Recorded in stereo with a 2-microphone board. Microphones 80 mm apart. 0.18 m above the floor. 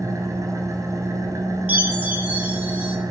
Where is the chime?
20° right (ahead or behind), 1.4 m.